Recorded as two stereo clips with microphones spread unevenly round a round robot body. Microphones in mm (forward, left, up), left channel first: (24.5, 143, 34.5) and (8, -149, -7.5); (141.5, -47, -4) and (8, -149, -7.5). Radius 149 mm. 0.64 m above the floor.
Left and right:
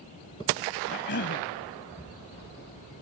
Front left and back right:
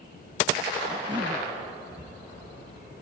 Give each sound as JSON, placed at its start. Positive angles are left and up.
{"t": 0.9, "sound": "a cough", "azimuth_deg": 145}